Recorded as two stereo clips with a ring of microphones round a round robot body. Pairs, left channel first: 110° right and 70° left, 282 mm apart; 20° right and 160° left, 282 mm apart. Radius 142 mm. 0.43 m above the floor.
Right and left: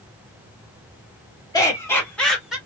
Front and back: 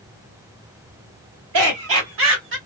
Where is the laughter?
175° left, 2 m; by 2.6 s 155° left, 1.7 m.